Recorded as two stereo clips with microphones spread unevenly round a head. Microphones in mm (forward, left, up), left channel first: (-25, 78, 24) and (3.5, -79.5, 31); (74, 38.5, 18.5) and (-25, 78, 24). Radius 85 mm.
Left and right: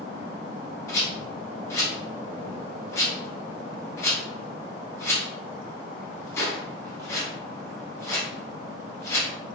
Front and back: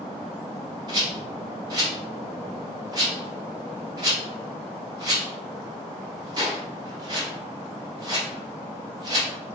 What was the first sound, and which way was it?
A rattle, 165° left.